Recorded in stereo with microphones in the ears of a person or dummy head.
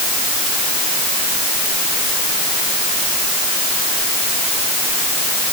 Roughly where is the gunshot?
No gunshot in this recording.